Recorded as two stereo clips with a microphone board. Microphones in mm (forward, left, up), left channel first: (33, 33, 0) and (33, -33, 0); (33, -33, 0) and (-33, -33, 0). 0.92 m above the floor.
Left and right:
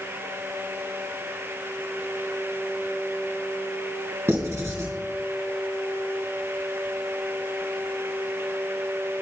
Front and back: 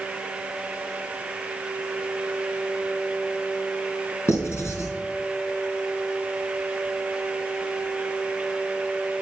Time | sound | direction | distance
4.3 | writing | 40° right | 4.5 m